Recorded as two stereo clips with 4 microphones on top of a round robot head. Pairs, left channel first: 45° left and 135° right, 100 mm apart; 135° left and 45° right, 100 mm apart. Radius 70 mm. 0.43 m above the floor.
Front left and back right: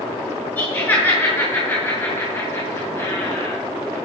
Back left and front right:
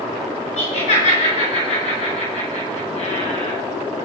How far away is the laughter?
About 6.5 m.